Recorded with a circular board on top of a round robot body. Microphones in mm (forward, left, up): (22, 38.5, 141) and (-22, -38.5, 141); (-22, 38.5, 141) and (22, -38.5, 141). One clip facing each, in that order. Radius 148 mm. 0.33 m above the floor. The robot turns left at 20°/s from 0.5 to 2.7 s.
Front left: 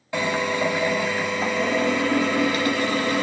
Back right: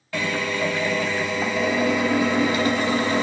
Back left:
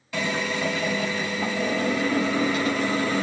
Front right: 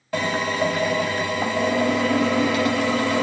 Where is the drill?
10° right, 1.0 m; by 3.2 s 55° right, 1.0 m.